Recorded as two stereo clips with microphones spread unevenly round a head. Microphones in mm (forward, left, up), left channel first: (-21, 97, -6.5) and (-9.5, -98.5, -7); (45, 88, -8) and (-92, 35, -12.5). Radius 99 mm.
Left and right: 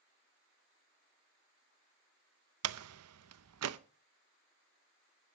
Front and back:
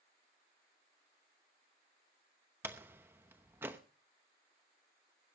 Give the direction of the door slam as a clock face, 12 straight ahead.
3 o'clock.